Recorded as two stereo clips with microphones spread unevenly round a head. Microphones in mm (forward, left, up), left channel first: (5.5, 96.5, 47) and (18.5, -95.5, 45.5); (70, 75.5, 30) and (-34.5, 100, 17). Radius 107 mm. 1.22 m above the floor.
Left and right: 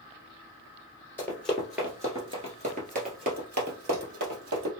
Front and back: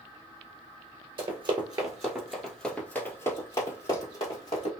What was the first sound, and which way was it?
Running footsteps, 165° left.